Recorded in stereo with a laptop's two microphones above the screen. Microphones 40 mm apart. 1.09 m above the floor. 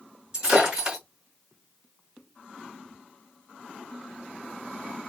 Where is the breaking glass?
15° right (ahead or behind), 2.0 m.